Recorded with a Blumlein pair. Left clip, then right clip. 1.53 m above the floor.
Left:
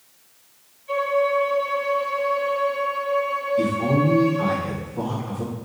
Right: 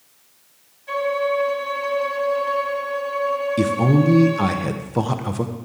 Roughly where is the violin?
Ahead right.